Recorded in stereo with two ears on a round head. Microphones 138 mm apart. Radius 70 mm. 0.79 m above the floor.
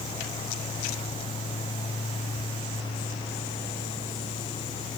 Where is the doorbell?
No doorbell in this recording.